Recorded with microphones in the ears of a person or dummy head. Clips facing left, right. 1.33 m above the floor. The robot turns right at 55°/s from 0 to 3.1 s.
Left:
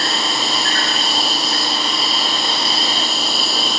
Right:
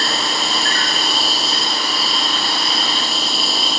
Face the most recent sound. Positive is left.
turn(degrees=60)